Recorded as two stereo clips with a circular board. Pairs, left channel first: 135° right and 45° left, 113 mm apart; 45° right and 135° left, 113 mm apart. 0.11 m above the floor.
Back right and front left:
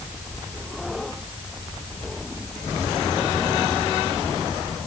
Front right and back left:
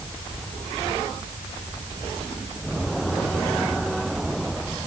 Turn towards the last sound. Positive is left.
No sound to turn to.